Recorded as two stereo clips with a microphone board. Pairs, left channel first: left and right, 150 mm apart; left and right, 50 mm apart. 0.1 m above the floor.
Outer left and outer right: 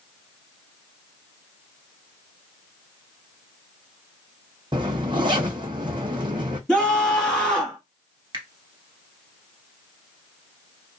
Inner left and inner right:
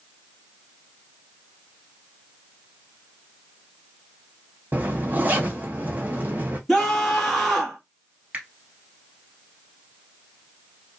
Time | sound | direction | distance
4.7 | a zipper | 30° right (ahead or behind) | 0.8 m
6.7 | a scream | 5° left (ahead or behind) | 1.6 m
8.3 | a finger snap | 25° right (ahead or behind) | 1.9 m